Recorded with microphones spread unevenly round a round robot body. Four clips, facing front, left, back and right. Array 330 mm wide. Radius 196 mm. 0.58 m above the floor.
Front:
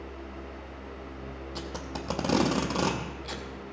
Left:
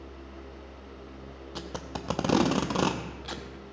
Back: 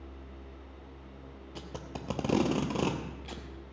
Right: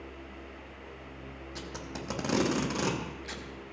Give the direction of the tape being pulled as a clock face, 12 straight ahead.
10 o'clock.